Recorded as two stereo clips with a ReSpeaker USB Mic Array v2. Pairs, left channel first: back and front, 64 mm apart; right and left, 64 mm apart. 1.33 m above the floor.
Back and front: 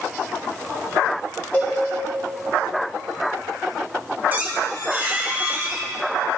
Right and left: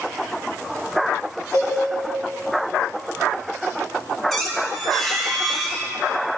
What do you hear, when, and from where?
1.5 s a cowbell: 125° right, 3 m
4.3 s a squeak: 20° right, 1.1 m